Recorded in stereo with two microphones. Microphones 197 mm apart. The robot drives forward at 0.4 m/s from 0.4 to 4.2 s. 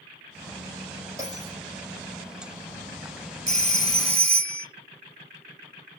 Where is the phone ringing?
35° right (ahead or behind), 0.9 m; by 4.7 s 30° right (ahead or behind), 1.0 m.